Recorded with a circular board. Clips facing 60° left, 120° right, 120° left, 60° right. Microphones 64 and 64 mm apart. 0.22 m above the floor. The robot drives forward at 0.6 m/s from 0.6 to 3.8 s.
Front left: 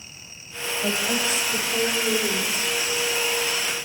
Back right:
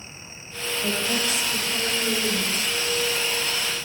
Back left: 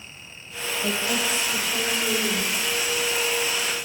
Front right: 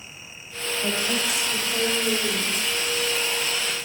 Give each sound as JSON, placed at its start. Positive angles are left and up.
{"t": 0.8, "sound": "a woman speaking", "azimuth_deg": 10, "distance_m": 7.5}